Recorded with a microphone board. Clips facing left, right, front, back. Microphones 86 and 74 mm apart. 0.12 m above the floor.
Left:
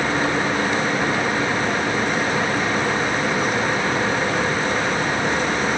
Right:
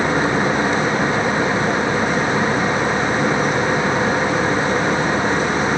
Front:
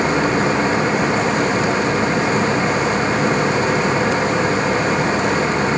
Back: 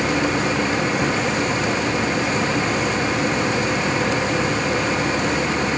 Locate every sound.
Only background noise.